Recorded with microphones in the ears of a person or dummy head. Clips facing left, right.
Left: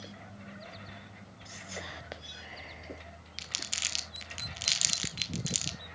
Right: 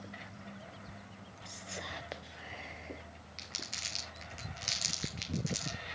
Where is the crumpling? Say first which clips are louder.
Even; 50° left (ahead or behind), 1.0 m.